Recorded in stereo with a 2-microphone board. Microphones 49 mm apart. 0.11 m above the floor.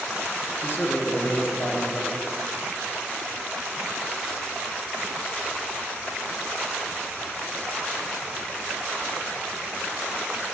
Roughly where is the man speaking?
Left.